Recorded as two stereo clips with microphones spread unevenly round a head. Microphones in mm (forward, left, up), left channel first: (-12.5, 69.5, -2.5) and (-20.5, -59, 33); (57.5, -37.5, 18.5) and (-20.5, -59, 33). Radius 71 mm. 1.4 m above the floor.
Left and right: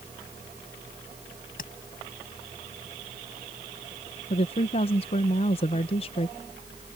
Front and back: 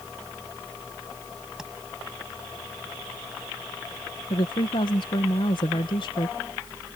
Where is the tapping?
110° left.